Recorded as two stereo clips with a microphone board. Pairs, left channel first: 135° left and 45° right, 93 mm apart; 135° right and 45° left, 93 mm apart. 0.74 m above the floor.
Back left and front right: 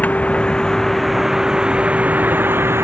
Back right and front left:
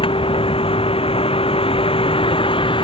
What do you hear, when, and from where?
0.0 s a vehicle: 150° right; by 2.9 s 110° right